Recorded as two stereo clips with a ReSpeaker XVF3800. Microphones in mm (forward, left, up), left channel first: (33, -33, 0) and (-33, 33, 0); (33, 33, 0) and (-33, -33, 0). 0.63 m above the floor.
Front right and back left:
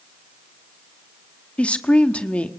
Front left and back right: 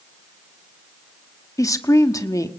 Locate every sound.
1.6 s a woman speaking: 25° left, 1.4 m